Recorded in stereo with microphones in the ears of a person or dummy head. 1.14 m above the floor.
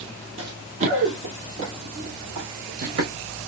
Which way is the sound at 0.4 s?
30° right (ahead or behind).